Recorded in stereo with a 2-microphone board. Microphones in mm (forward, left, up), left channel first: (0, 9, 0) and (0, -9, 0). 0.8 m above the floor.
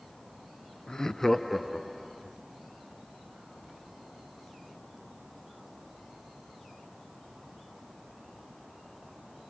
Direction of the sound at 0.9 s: 40° left (ahead or behind).